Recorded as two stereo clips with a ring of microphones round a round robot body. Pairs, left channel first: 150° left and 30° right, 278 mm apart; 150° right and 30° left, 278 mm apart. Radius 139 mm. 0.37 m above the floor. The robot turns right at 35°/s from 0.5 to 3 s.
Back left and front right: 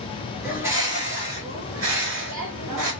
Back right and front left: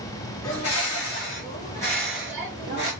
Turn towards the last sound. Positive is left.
turn(degrees=-30)